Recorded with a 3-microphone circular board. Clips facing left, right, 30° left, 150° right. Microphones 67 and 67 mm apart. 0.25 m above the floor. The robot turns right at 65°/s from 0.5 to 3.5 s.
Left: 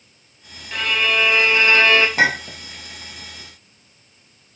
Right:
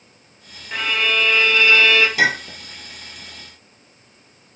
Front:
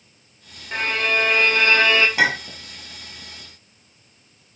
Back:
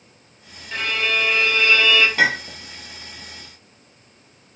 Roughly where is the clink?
Left.